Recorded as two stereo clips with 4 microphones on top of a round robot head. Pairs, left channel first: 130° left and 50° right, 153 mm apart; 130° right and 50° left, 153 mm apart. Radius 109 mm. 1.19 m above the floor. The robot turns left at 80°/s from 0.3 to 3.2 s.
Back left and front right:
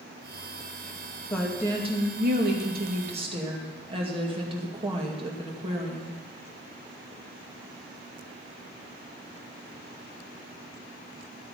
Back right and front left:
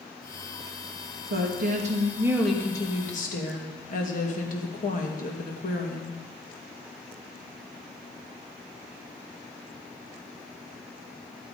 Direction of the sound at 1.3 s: 50° left.